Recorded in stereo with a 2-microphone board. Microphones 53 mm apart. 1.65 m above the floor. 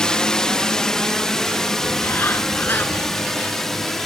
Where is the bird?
45° left (ahead or behind).